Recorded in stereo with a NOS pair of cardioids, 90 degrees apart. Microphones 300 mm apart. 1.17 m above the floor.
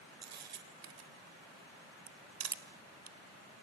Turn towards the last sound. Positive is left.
turn(degrees=-30)